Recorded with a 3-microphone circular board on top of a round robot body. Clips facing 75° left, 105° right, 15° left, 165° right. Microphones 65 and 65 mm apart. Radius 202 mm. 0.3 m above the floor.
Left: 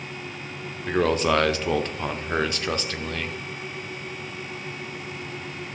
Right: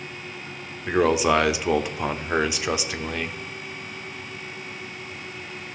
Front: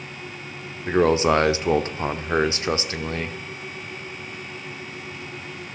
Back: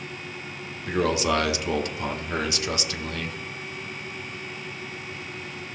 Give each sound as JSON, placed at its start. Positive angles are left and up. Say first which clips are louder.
{"t": 0.9, "sound": "a man speaking", "louder": "right 2 dB, front 5 dB", "azimuth_deg": -25, "distance_m": 1.4}